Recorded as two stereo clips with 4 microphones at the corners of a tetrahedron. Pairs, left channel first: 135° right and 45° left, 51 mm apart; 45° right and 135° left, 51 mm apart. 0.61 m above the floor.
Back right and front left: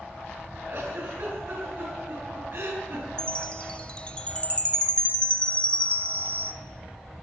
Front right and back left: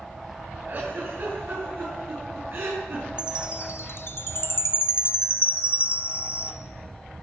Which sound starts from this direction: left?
A giggle, at 0.7 s.